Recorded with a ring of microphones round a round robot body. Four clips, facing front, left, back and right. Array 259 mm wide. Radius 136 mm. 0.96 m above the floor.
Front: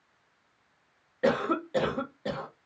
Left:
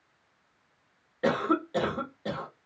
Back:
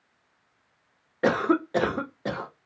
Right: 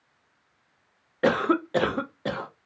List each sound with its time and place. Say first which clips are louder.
1.2 s a cough: right 4 dB, back 4 dB; 130° right, 0.8 m